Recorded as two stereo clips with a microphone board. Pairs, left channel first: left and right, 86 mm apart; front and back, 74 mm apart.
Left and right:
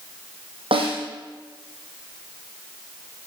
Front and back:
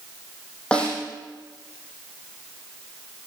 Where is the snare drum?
75° right, 4.5 m.